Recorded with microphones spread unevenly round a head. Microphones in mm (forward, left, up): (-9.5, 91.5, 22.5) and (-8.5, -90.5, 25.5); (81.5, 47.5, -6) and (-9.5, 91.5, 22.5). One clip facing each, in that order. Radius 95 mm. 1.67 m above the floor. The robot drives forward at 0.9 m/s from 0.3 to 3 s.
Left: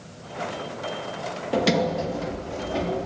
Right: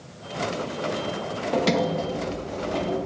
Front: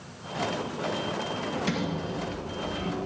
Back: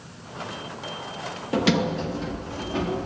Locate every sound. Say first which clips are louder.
1.5 s a sliding door: left 1 dB, back 11 dB; 175° left, 2.5 m; by 3.1 s straight behind, 3.5 m